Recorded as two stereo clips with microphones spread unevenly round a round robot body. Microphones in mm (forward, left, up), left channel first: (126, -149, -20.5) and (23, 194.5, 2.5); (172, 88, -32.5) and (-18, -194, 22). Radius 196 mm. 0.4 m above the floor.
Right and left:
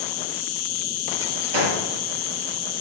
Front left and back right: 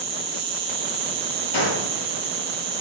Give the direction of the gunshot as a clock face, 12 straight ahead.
9 o'clock.